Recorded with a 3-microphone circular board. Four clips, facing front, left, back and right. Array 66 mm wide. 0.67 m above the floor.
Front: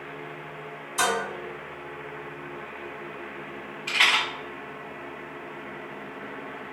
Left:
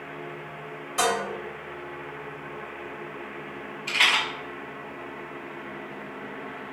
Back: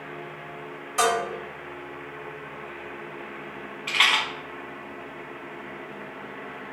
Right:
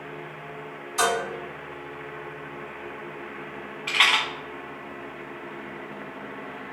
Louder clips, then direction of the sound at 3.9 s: Right 1 dB, even; 130° right.